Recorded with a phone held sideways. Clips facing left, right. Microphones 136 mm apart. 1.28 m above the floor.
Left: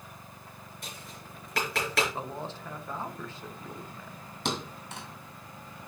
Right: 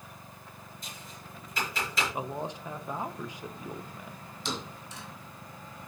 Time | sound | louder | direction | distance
0.8 | tapping | left 3 dB | 70° left (ahead or behind) | 5 m
2.1 | a man speaking | right 2 dB | 15° right (ahead or behind) | 1.1 m
4.5 | a thud | left 4 dB | 60° left (ahead or behind) | 2 m